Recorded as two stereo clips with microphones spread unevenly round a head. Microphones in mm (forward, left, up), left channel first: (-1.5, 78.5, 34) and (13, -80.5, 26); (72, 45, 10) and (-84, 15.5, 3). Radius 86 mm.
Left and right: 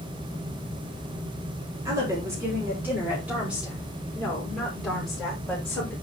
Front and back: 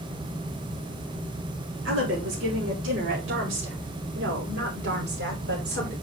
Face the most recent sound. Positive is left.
turn(degrees=180)